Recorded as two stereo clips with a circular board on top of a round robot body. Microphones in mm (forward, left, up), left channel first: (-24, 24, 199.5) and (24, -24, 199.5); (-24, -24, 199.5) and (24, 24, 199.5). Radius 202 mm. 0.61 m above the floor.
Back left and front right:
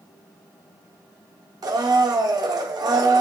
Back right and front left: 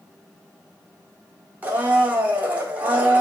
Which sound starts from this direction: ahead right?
A blender, at 1.6 s.